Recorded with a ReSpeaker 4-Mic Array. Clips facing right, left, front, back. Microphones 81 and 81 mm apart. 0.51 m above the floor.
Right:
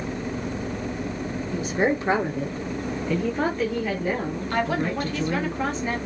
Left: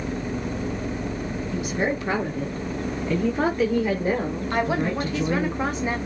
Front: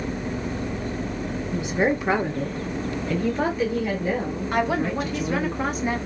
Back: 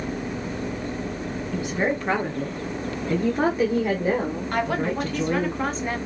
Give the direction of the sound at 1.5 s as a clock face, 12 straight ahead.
2 o'clock.